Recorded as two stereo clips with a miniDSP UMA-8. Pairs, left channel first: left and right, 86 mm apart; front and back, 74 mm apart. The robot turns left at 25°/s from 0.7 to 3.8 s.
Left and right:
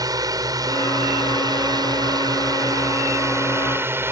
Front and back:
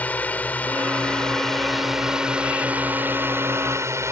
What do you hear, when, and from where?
0.0 s a drone: 65° right; by 4.1 s 145° right